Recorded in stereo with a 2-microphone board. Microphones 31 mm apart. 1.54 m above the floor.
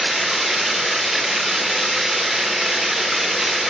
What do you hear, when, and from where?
0.0 s running water: 10° right (ahead or behind), 1.7 m